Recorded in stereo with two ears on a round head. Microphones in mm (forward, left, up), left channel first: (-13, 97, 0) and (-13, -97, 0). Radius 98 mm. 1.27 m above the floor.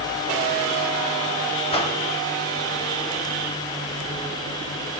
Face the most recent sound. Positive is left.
turn(degrees=30)  # may be behind; listen again after turning